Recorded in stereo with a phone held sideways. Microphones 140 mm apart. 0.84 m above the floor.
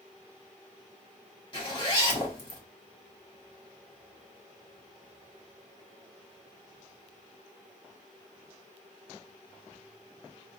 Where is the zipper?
35° left (ahead or behind), 1.7 m.